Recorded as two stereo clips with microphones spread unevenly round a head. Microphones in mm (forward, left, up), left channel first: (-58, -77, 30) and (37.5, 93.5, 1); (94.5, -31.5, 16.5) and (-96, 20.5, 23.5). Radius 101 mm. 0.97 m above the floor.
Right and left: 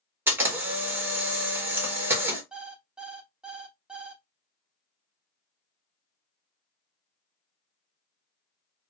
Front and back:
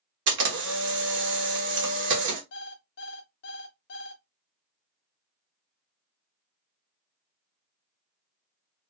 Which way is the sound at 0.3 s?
140° left.